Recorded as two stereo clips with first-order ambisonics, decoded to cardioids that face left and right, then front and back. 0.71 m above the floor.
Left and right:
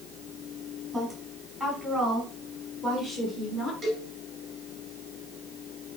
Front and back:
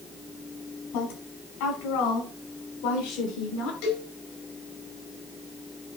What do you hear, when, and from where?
0.9 s a woman speaking: 5° right, 5 m; by 3.7 s 15° left, 6.5 m
3.8 s a cowbell: straight ahead, 4.5 m